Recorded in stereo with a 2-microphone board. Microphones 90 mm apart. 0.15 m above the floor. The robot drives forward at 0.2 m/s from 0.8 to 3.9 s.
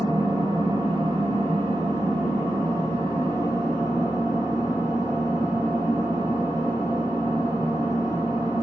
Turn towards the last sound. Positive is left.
turn(degrees=-40)  # may be behind; listen again after turning